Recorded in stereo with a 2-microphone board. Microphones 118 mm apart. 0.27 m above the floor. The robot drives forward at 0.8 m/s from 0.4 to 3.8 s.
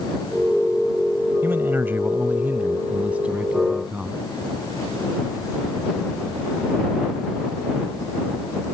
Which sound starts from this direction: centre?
A man speaking, at 1.4 s.